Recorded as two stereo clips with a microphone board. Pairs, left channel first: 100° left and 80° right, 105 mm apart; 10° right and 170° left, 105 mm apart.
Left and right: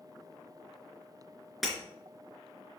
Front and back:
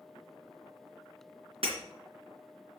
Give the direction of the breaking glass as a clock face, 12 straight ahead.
6 o'clock.